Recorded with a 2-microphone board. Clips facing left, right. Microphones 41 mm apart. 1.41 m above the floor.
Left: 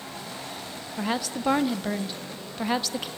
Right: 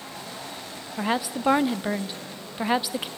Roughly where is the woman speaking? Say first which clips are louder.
Right 3 dB; centre.